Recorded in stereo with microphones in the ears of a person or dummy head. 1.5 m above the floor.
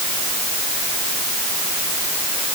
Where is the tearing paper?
No tearing paper in this recording.